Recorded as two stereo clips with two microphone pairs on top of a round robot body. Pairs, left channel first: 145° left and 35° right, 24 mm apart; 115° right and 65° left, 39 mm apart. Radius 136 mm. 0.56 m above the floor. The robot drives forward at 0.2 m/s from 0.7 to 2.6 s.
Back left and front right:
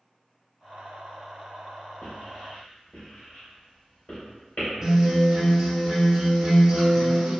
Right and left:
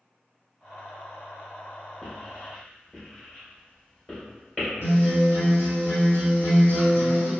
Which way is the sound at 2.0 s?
170° left.